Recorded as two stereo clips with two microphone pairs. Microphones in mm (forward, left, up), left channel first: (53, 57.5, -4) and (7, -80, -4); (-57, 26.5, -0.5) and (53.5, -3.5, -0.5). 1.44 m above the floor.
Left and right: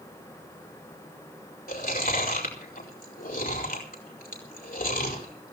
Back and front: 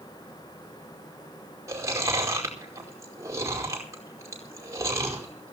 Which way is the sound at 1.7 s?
50° left.